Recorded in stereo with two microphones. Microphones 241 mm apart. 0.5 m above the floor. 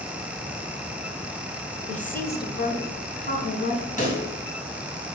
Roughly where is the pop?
Left.